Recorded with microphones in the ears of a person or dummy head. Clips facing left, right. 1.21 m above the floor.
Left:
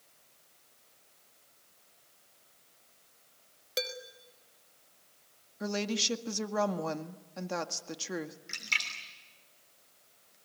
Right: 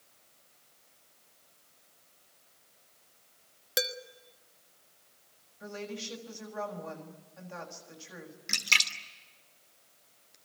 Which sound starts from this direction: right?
A splash, at 8.5 s.